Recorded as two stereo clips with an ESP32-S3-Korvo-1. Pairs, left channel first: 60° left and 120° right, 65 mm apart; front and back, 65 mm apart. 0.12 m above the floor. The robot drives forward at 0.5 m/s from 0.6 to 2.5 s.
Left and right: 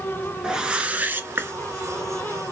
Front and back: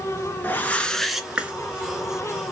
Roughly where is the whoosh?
Ahead right.